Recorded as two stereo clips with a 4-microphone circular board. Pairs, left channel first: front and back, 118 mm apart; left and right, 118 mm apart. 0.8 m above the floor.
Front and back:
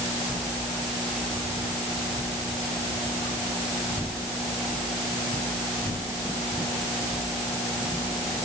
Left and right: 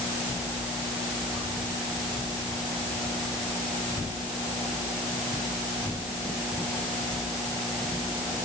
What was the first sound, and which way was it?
Only background noise.